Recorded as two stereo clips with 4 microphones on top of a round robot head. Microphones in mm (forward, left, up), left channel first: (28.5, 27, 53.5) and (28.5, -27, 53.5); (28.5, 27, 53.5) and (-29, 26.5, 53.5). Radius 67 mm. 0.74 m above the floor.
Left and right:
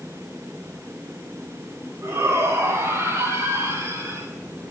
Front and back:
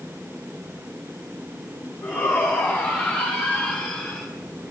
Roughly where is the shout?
Ahead right.